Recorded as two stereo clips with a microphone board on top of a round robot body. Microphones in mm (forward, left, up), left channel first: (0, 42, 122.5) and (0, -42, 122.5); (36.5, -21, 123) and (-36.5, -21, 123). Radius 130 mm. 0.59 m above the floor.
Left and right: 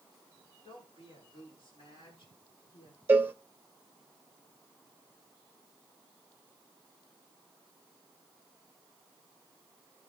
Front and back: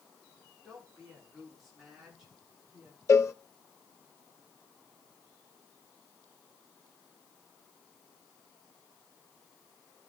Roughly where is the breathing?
I don't hear breathing.